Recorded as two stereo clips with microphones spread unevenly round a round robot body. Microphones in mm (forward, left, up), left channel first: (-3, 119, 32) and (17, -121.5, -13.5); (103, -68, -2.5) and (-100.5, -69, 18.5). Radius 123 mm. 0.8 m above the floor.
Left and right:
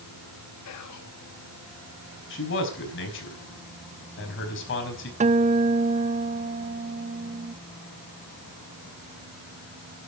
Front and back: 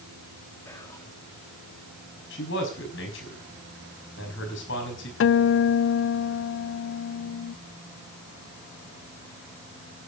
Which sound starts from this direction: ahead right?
A guitar, at 5.2 s.